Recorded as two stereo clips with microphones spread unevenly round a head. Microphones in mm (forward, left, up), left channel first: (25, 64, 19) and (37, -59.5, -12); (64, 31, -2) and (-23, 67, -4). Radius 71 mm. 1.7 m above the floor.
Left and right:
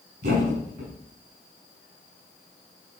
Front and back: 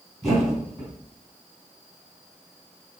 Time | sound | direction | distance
0.2 | a thud | 115° right | 4.5 m